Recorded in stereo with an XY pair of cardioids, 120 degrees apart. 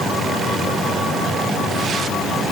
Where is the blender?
I don't hear a blender.